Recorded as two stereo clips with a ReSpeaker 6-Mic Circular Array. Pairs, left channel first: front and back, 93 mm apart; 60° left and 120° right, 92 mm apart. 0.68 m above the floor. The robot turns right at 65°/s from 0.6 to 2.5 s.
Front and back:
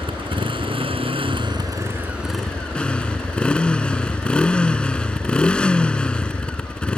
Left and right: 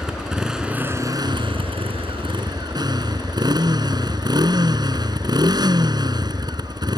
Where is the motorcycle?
155° left; by 7.0 s 80° right.